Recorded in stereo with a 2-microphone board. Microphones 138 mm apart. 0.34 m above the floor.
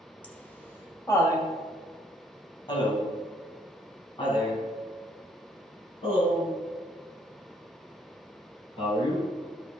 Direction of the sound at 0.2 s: 10° left (ahead or behind).